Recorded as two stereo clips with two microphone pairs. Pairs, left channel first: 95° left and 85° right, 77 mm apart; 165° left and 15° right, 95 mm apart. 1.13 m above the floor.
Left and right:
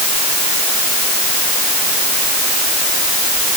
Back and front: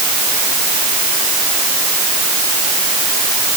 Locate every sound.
Only background noise.